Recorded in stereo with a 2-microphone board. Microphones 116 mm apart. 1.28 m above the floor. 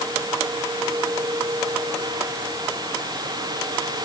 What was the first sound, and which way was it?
Only background noise.